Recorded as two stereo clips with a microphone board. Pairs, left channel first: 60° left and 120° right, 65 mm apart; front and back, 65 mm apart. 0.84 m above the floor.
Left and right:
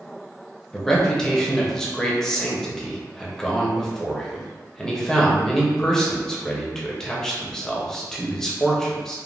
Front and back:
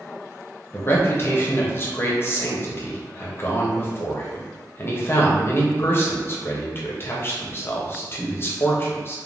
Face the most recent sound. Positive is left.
turn(degrees=-15)